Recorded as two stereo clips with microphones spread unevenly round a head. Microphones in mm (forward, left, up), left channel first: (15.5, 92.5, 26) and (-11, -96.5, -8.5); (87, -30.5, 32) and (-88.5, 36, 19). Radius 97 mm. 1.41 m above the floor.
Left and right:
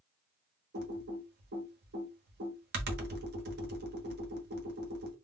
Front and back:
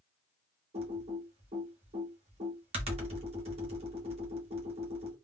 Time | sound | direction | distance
0.7 | typing on a keyboard | 140° right | 1.1 m